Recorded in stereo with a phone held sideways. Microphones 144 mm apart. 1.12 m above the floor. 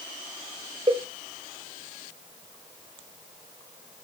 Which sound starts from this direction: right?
A cowbell, at 0.9 s.